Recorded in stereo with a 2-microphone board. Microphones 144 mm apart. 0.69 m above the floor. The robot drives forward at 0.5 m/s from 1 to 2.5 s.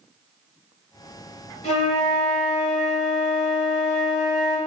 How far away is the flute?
About 1.3 m.